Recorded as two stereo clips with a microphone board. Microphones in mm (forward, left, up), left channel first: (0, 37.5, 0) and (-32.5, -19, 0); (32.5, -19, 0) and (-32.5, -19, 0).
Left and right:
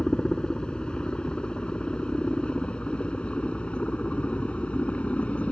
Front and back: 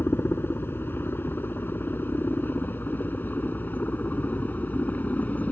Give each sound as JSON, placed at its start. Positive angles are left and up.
{"t": 0.0, "sound": "a helicopter", "azimuth_deg": -10}